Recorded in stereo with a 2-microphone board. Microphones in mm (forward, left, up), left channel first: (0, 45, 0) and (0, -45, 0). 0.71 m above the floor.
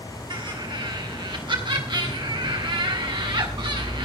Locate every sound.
0.3 s laughter: 60° right (ahead or behind), 5.5 m